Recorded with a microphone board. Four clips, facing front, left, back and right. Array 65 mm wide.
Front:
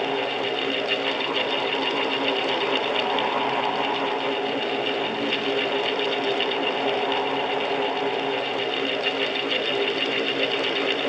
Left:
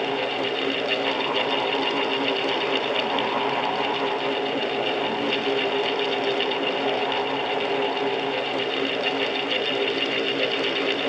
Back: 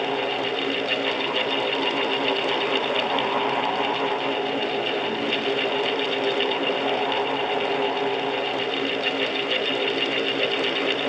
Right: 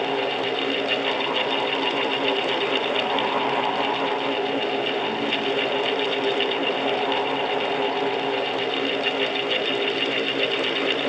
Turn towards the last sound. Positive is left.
No sound to turn to.